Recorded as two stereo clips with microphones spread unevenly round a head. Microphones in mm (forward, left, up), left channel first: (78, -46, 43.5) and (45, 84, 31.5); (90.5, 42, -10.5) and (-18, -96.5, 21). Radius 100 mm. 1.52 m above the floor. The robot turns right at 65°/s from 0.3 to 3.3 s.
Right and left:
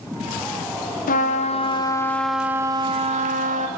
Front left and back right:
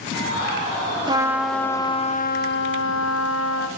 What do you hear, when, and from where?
1.1 s a trumpet: 70° right, 0.7 m; by 3.7 s 75° left, 0.7 m